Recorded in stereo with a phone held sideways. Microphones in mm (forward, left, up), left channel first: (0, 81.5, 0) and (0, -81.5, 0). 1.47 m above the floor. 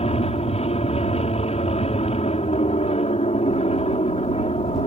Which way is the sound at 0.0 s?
40° left (ahead or behind).